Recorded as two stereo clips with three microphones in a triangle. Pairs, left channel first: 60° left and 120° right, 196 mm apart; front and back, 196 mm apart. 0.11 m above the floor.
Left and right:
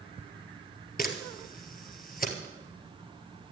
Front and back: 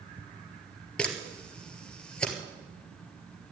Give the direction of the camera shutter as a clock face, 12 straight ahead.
9 o'clock.